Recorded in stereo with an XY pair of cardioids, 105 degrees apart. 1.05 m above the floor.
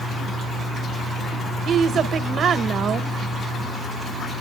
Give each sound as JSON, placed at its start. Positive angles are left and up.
{"t": 1.6, "sound": "a woman speaking", "azimuth_deg": -65, "distance_m": 1.0}